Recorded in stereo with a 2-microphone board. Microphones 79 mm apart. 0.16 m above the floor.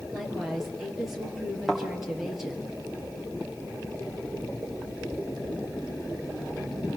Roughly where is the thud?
Centre.